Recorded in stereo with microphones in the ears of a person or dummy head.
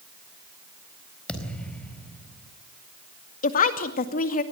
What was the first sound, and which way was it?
A thud, 10° left (ahead or behind).